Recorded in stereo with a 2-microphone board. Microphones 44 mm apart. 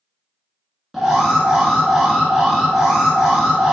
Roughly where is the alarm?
Centre.